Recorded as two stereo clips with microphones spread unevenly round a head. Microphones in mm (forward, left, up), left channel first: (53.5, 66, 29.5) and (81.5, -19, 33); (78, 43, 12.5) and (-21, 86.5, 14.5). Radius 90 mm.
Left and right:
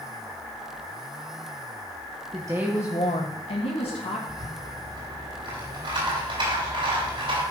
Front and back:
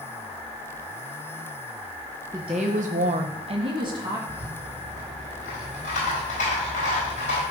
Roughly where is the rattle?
Ahead right.